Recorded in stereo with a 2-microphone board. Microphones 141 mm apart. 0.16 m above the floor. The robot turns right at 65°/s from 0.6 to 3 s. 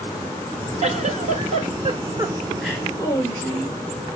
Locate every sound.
0.8 s a giggle: 115° right, 1.3 m; by 3.8 s 25° left, 1.3 m